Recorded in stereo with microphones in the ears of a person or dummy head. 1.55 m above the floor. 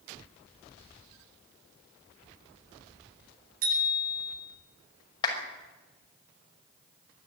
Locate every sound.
3.6 s a bicycle bell: 50° right (ahead or behind), 9.5 m
5.2 s a clap: 25° left (ahead or behind), 6 m